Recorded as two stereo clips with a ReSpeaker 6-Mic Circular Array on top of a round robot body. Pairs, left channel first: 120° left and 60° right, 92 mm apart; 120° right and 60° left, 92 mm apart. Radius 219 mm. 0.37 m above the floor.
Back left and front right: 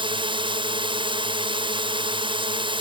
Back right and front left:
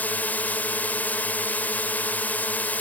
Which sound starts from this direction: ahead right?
A drone, at 0.0 s.